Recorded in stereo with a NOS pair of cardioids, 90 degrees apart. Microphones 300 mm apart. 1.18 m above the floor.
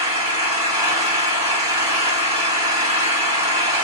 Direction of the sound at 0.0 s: 20° right.